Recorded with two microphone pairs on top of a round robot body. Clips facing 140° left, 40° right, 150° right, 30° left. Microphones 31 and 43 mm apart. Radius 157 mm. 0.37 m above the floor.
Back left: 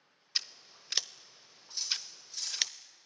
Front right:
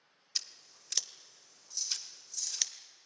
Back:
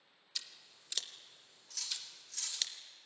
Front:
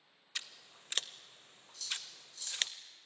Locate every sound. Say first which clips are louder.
0.3 s scissors: back left 4 dB, front 4 dB; 80° left, 0.6 m
1.7 s cutlery clinking: back left 3 dB, front 3 dB; 170° right, 5.5 m